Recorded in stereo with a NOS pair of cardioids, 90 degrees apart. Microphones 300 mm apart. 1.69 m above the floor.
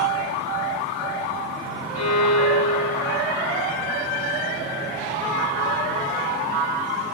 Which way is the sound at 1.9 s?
60° left.